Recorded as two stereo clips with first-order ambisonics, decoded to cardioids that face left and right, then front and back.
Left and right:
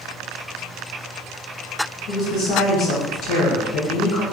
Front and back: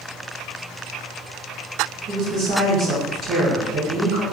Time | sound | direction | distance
2.1 | a woman speaking | 120° left | 1.2 m